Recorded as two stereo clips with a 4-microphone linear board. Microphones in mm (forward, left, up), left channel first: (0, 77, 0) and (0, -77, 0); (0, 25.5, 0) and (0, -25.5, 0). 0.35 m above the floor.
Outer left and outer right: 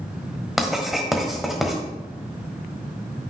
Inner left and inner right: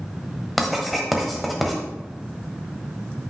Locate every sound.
0.6 s writing: centre (ahead or behind), 1.3 m